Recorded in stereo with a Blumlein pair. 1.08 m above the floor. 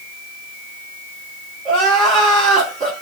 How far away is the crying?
About 1.6 m.